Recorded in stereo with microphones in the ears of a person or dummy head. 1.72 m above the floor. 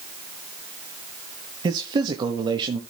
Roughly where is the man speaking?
Right.